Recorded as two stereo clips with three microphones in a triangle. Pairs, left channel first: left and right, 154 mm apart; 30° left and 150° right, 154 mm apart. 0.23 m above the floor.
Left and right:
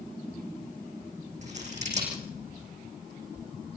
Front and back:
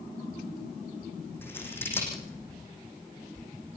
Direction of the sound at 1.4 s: 45° right.